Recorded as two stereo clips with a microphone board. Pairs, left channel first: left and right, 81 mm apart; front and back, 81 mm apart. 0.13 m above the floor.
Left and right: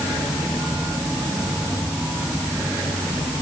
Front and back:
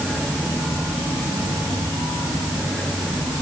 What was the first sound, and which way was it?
Only background noise.